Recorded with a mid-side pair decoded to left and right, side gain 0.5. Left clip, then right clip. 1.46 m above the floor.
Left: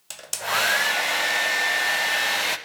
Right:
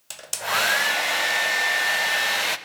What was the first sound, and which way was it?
A hair dryer, 5° right.